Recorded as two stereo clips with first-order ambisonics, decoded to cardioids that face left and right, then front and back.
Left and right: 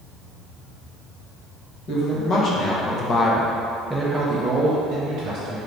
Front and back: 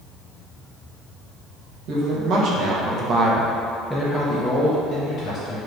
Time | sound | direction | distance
1.9 | a man speaking | 145° left | 1.2 m